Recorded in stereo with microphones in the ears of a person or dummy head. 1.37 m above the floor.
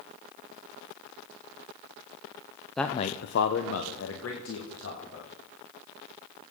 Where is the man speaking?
5° left (ahead or behind), 0.5 m; by 5.3 s 70° left (ahead or behind), 3 m.